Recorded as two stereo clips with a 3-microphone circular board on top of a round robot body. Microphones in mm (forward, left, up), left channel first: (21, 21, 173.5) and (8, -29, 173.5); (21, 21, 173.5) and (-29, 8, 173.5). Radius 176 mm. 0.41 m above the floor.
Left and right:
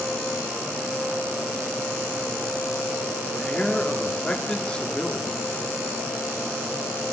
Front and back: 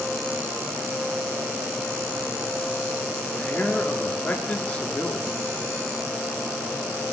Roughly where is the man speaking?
Ahead left.